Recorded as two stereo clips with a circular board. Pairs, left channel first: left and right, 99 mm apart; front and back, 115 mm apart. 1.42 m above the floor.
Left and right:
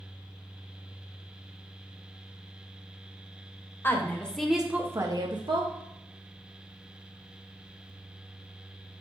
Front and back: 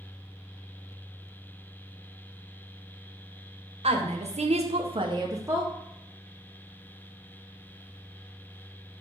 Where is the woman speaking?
155° left, 0.7 m; by 5.7 s 110° right, 0.6 m.